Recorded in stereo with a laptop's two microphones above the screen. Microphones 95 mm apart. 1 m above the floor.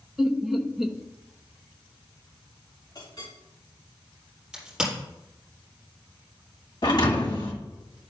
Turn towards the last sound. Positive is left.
turn(degrees=50)  # may be behind; listen again after turning